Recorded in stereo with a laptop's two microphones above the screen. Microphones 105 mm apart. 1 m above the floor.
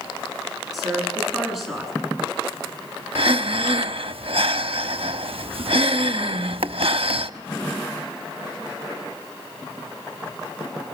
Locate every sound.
0.7 s a woman speaking: centre (ahead or behind), 9.5 m
3.1 s breathing: 70° right (ahead or behind), 0.8 m